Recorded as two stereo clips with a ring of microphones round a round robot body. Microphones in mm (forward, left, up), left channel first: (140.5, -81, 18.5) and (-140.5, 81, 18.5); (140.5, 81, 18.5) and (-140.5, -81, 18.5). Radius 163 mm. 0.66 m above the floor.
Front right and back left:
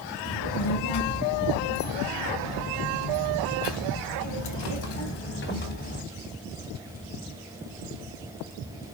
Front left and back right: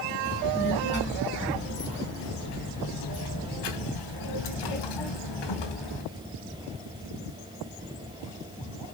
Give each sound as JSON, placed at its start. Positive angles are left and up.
{"t": 0.2, "sound": "a child speaking", "azimuth_deg": -35, "distance_m": 4.5}